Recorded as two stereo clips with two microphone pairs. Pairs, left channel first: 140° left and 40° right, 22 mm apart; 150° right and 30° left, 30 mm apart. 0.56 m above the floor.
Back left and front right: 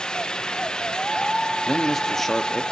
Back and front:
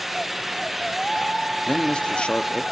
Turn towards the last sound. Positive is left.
turn(degrees=-150)